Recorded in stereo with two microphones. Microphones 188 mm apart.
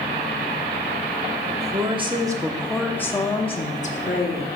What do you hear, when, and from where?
1.5 s a woman speaking: 40° right (ahead or behind), 1.5 m; by 4.5 s 55° left (ahead or behind), 1.6 m